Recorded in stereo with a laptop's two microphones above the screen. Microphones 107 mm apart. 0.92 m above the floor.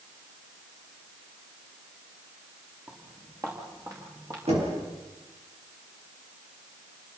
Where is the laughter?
I don't hear laughter.